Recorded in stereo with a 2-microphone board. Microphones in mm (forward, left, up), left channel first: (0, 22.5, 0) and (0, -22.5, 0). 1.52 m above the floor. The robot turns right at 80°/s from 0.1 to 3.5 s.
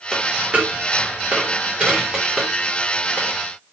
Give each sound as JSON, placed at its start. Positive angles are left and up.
{"t": 0.1, "sound": "a dropped coin", "side_deg": -5, "distance_m": 1.0}